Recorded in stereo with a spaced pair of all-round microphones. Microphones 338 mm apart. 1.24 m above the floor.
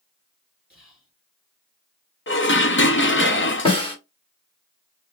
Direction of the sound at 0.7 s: 25° right (ahead or behind).